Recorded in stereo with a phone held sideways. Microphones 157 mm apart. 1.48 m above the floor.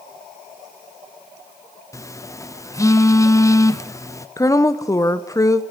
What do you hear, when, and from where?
1.9 s a phone buzzing: 20° left (ahead or behind), 0.5 m
4.4 s a woman speaking: 20° left (ahead or behind), 0.6 m